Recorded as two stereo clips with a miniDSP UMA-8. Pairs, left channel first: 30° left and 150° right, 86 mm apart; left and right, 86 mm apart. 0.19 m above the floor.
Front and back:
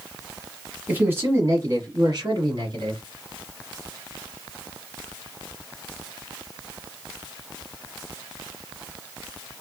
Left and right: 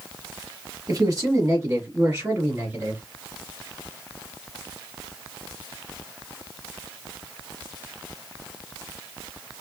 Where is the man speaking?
90° right, 1.3 m; by 3.0 s 150° right, 1.7 m.